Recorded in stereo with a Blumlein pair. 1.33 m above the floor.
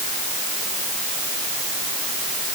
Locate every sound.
Only background noise.